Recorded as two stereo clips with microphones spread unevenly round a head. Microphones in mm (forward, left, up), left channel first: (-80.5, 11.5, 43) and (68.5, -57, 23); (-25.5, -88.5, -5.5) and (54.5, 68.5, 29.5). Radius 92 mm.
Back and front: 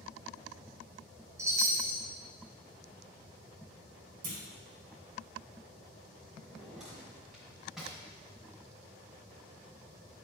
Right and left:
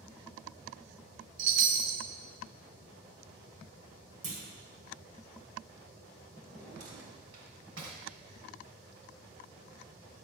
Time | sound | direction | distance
1.4 | a chime | 45° left | 0.7 m
4.2 | a clunk | 20° left | 1.8 m
6.4 | a drawer | 65° left | 2 m